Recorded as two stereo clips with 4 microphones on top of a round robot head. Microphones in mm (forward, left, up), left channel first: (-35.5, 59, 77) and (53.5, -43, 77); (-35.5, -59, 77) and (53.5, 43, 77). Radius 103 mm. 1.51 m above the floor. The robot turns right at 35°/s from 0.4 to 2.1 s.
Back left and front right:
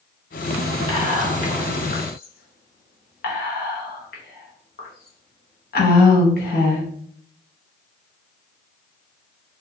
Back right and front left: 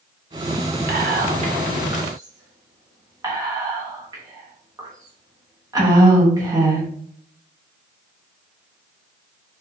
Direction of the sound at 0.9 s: 75° left.